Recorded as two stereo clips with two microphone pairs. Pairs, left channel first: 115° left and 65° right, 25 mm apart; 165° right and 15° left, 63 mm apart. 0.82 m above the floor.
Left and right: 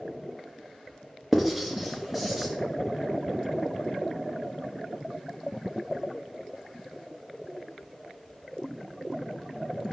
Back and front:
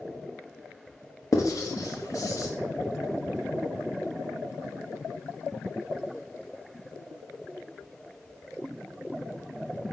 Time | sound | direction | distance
1.3 | writing | 150° right | 0.7 m